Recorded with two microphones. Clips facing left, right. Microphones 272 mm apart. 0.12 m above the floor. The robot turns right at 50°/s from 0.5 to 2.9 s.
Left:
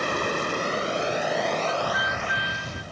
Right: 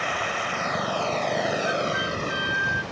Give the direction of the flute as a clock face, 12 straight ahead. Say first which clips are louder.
Right 2 dB; 2 o'clock.